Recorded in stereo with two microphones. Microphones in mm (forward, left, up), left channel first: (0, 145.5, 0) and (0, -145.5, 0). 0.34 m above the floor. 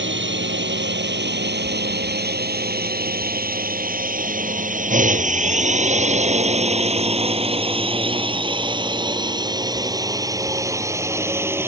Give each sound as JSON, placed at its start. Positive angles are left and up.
{"t": 0.0, "sound": "a drone", "side_deg": -40}